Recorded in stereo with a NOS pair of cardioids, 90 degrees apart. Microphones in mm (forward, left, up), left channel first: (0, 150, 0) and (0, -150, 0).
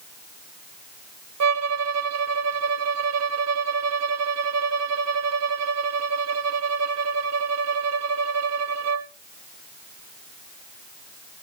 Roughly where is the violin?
Ahead right.